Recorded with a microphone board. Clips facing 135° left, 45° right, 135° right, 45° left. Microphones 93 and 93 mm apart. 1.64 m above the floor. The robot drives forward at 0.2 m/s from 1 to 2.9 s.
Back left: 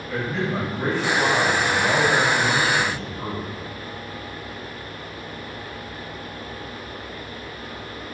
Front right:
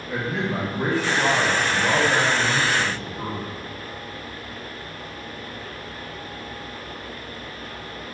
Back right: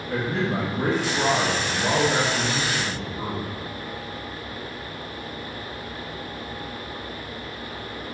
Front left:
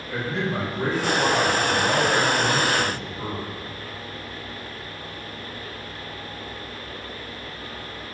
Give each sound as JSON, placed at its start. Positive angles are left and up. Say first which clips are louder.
{"t": 0.1, "sound": "a man speaking", "louder": "even, back right 2 dB", "azimuth_deg": -105, "distance_m": 0.8}